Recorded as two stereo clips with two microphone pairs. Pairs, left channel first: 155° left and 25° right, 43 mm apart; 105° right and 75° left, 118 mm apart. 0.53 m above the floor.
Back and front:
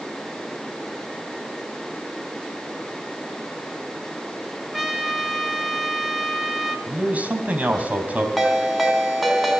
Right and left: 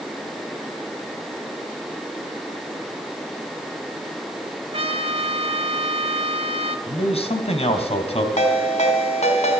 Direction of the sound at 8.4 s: 110° right.